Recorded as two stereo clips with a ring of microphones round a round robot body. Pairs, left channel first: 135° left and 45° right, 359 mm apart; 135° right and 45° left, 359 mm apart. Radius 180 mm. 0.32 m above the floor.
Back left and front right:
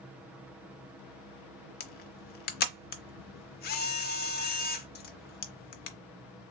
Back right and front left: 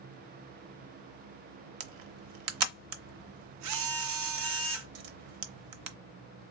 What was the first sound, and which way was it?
A camera shutter, 75° left.